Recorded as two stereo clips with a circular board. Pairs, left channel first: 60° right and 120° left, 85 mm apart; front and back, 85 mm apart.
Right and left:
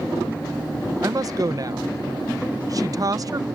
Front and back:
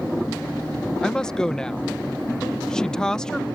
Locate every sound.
1.0 s a woman speaking: 80° left